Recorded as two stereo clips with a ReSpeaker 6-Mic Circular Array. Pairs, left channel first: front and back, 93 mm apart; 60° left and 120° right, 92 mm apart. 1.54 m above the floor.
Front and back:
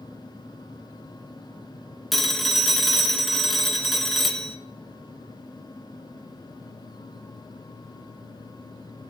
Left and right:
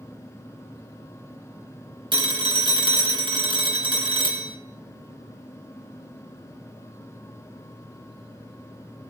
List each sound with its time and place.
2.1 s a phone ringing: 90° right, 1.4 m